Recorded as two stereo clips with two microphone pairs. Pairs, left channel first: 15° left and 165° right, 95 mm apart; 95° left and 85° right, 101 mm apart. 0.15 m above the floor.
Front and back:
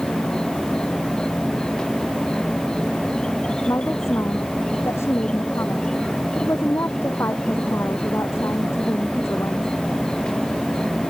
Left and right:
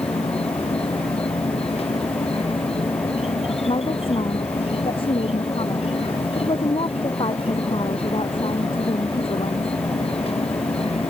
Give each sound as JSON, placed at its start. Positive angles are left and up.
{"t": 0.0, "sound": "an insect", "azimuth_deg": 95}
{"t": 3.7, "sound": "a woman speaking", "azimuth_deg": 75}